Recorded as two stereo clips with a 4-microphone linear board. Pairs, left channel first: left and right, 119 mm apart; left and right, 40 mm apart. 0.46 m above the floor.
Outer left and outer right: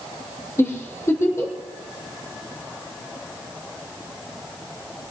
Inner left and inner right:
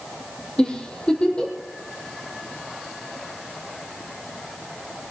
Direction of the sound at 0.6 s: 25° left (ahead or behind).